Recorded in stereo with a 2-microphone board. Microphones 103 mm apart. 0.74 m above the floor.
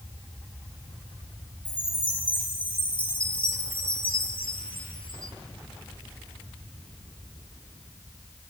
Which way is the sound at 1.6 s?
55° left (ahead or behind).